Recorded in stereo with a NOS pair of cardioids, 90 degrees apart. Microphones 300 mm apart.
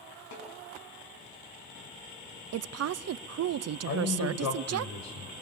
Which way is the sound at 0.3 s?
65° left.